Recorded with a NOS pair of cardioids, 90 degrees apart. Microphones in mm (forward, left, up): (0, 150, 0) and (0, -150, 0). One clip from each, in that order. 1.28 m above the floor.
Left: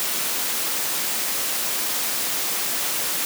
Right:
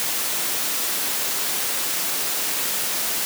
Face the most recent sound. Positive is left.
No sound to turn to.